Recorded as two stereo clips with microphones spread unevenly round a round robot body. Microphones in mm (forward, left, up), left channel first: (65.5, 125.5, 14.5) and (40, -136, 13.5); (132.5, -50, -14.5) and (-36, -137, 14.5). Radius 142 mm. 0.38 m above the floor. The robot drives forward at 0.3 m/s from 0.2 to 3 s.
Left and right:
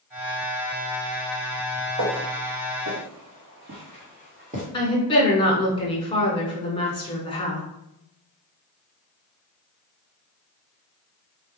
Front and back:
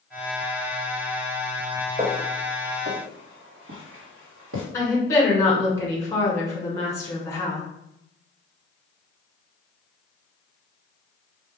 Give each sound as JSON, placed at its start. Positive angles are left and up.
{"t": 2.0, "sound": "footsteps", "azimuth_deg": -95, "distance_m": 1.4}
{"t": 4.7, "sound": "a woman speaking", "azimuth_deg": 45, "distance_m": 1.0}